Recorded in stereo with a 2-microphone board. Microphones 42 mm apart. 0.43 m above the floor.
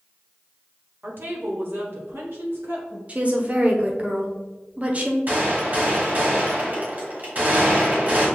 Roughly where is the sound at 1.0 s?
Right.